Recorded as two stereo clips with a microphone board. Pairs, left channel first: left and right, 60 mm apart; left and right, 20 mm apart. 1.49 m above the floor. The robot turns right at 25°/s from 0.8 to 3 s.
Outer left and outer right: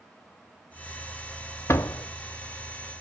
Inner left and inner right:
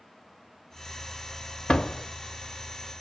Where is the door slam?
45° left (ahead or behind), 0.6 m; by 2.1 s 55° left (ahead or behind), 0.6 m.